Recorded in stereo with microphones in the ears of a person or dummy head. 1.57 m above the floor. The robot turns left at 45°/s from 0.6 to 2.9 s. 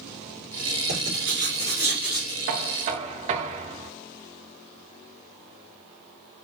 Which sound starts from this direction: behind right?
Writing, at 0.9 s.